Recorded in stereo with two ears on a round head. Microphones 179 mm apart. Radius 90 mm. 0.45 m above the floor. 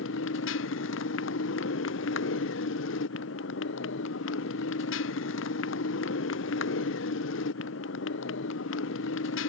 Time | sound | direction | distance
0.0 | a motorcycle | 70° left (ahead or behind) | ?